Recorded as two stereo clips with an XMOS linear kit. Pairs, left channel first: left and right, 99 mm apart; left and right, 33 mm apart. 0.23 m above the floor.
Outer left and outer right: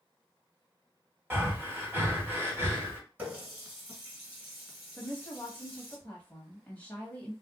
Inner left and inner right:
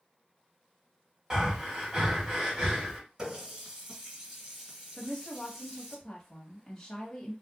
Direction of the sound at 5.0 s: 15° left (ahead or behind).